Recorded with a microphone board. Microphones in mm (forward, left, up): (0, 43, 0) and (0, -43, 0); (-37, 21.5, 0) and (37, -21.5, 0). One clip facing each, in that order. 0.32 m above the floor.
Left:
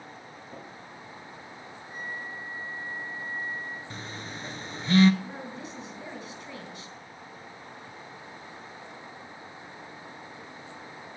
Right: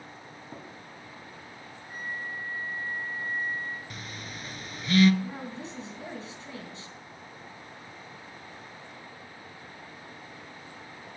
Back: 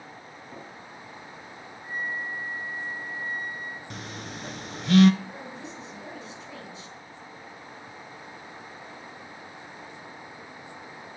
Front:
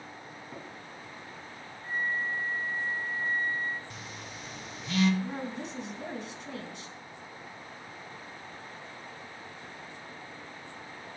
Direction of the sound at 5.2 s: 30° right.